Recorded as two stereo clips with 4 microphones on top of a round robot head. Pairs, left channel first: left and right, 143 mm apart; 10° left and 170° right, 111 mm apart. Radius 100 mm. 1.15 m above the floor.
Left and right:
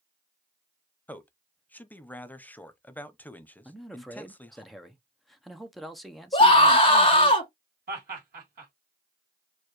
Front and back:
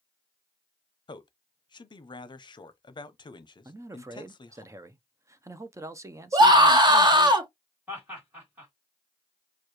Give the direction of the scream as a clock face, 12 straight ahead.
7 o'clock.